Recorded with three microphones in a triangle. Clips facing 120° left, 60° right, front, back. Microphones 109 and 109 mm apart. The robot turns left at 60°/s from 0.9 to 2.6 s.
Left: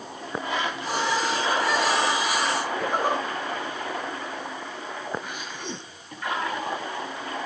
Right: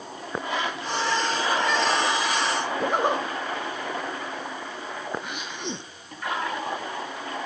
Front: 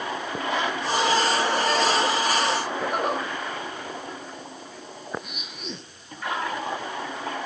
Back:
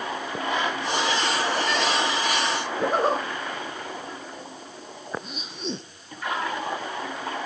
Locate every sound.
2.8 s a zipper: 125° right, 1.4 m